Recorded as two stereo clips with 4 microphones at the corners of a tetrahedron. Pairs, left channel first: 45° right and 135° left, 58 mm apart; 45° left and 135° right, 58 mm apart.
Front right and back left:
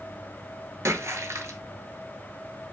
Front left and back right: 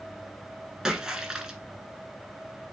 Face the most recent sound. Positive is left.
turn(degrees=145)